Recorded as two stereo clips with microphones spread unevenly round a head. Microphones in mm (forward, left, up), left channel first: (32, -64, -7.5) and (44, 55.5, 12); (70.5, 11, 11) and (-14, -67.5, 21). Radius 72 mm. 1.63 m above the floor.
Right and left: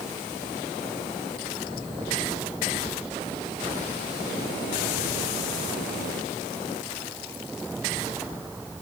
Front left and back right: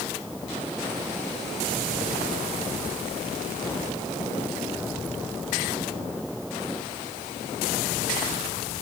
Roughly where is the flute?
I don't hear a flute.